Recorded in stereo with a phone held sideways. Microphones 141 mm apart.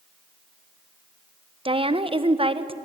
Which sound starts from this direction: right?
A woman speaking, at 1.6 s.